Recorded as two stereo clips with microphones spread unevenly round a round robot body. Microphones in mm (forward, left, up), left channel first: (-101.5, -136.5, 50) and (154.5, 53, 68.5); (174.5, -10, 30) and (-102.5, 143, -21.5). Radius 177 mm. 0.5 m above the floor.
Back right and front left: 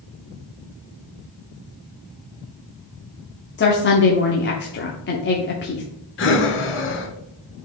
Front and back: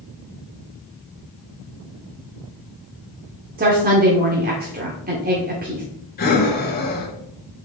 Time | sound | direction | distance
3.6 | a woman speaking | 175° right | 1.0 m
6.2 | breathing | 90° right | 1.0 m